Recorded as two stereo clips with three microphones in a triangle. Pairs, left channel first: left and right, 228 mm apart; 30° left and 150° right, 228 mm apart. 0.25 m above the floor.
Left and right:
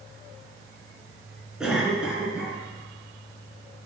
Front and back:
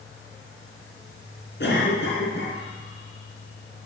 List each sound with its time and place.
1.6 s a cough: 5° right, 3.5 m